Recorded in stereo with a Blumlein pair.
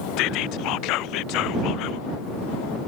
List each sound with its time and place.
0.2 s whispering: 40° left